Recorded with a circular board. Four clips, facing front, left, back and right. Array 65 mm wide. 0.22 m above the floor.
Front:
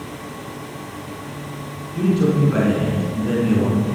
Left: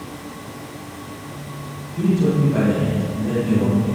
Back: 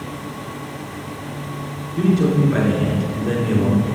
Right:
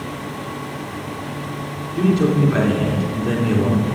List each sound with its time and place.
1.9 s a man speaking: 70° right, 3 m